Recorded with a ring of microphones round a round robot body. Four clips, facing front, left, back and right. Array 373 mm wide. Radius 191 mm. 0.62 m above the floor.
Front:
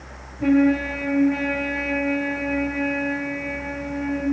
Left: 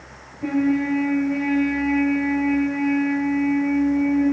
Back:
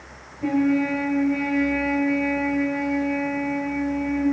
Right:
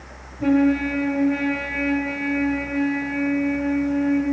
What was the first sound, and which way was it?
A trumpet, 50° right.